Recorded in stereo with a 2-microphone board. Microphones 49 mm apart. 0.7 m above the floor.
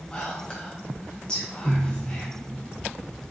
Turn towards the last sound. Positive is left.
turn(degrees=20)  # may be behind; listen again after turning